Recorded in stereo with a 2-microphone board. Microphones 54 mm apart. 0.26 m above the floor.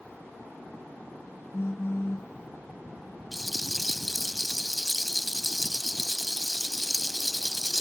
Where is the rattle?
Centre (ahead or behind).